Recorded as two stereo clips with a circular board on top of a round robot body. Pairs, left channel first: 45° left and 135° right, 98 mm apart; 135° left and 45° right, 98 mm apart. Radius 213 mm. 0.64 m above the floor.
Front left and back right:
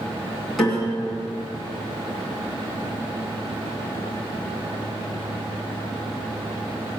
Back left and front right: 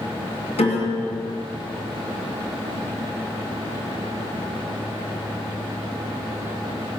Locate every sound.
0.6 s a piano: 135° left, 2.5 m